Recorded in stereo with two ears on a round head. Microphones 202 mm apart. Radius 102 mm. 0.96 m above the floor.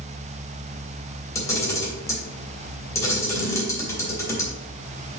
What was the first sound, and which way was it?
A camera shutter, 15° left (ahead or behind).